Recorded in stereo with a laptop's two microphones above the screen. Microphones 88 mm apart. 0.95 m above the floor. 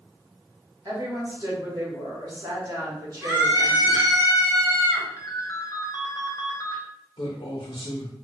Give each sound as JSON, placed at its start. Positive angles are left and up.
{"t": 0.8, "sound": "a woman speaking", "side_deg": -45, "distance_m": 1.1}
{"t": 3.2, "sound": "a scream", "side_deg": -35, "distance_m": 1.9}
{"t": 5.2, "sound": "a ringtone", "side_deg": 40, "distance_m": 0.7}
{"t": 7.2, "sound": "a man speaking", "side_deg": 70, "distance_m": 0.6}